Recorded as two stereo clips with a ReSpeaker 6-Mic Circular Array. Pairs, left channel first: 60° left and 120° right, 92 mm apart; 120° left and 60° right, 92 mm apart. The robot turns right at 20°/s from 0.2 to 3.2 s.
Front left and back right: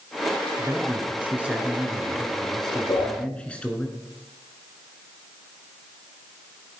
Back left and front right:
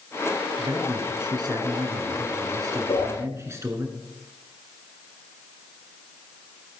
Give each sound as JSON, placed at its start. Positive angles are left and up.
{"t": 0.6, "sound": "a man speaking", "azimuth_deg": -65, "distance_m": 2.0}
{"t": 2.9, "sound": "a whoosh", "azimuth_deg": 100, "distance_m": 6.0}